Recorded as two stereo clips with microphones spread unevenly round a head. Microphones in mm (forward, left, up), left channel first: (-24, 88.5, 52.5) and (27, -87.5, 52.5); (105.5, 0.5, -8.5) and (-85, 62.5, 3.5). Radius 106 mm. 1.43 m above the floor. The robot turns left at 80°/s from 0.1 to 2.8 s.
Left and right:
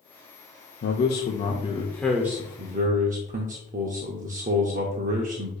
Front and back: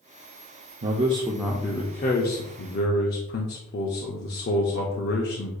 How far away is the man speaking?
About 0.6 m.